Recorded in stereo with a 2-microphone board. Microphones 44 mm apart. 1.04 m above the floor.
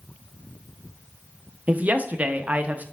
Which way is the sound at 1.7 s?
35° right (ahead or behind).